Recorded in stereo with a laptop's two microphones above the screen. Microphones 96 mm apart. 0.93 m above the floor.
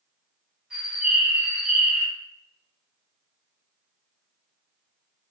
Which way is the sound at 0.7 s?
5° right (ahead or behind).